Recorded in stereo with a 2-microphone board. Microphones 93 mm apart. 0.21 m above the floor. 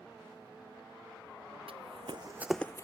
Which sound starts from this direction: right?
Running footsteps, at 1.7 s.